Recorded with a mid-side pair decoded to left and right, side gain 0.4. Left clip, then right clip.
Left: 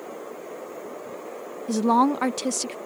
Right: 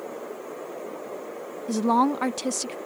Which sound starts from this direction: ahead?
A woman speaking, at 1.7 s.